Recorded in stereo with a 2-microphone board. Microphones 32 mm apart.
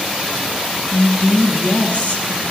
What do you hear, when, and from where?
0.9 s a woman speaking: 60° left (ahead or behind), 1.8 m